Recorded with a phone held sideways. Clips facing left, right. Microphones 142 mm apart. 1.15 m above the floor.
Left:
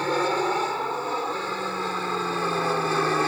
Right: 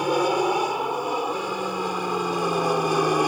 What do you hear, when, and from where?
0.0 s an aircraft: 10° right (ahead or behind); by 3.3 s 15° right (ahead or behind)